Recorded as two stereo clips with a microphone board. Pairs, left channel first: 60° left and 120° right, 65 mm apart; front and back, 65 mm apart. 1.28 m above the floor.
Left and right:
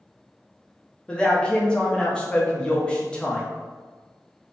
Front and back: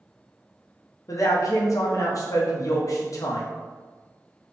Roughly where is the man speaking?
Ahead.